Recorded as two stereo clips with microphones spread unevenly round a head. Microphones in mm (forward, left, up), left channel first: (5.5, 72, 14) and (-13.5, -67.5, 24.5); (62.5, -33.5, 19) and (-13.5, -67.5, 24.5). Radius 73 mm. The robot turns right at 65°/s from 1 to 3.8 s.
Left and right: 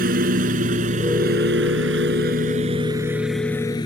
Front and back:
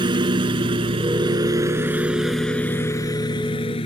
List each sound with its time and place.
0.0 s a lawn mower: 130° right; by 3.9 s 15° left